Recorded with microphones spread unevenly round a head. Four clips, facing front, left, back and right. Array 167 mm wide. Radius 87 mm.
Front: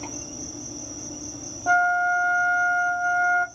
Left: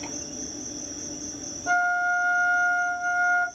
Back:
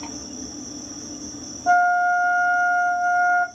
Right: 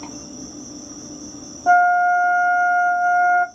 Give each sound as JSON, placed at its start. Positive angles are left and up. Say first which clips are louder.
{"t": 0.0, "sound": "an insect", "louder": "right 2 dB, back 2 dB", "azimuth_deg": -130, "distance_m": 2.5}
{"t": 1.7, "sound": "a flute", "louder": "right 10 dB, back 3 dB", "azimuth_deg": -85, "distance_m": 0.9}